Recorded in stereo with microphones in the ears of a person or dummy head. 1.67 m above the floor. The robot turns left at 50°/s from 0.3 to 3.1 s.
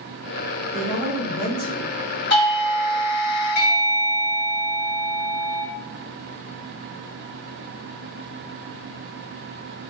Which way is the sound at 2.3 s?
120° left.